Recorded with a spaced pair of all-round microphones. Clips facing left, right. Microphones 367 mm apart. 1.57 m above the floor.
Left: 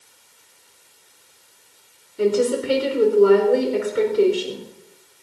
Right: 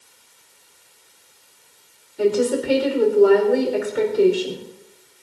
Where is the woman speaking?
10° left (ahead or behind), 5.5 m.